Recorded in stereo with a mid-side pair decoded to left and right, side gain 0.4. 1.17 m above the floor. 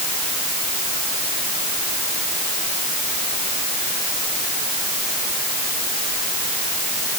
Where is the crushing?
No crushing in this recording.